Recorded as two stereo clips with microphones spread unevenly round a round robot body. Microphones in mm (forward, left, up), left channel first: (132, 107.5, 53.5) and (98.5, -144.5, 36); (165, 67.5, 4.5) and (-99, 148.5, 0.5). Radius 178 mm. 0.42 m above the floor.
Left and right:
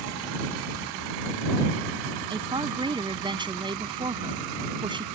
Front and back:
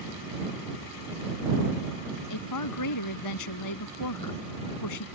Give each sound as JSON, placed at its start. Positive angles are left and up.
{"t": 2.3, "sound": "a woman speaking", "azimuth_deg": -25}